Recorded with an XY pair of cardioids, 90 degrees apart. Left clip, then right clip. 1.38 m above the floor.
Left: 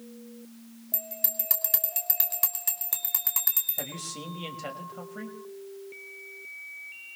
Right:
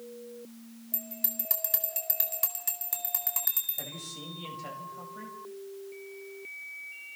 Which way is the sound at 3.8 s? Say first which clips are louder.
Left 3 dB; 60° left.